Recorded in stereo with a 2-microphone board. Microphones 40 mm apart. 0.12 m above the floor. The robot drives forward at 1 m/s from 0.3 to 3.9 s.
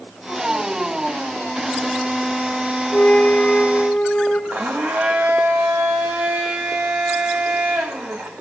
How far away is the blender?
About 4 m.